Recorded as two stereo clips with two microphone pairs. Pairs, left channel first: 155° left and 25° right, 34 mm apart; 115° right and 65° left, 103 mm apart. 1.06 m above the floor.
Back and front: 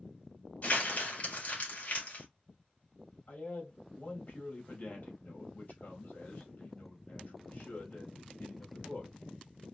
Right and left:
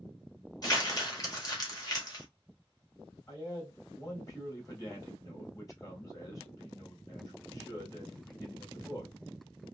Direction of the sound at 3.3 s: 165° right.